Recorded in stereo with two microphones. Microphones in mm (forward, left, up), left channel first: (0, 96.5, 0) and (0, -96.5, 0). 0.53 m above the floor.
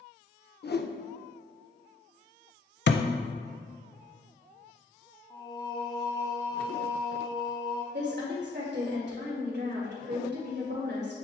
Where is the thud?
65° left (ahead or behind), 0.6 m.